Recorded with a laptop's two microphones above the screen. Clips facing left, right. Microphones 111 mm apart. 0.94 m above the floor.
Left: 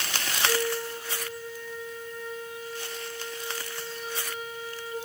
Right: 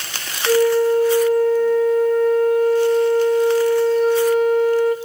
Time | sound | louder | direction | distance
0.5 | a flute | right 16 dB | 65° right (ahead or behind) | 1.6 m